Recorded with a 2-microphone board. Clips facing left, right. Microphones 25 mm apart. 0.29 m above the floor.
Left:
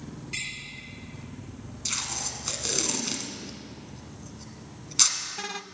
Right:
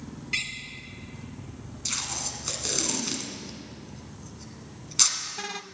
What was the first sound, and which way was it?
A door slam, 30° right (ahead or behind).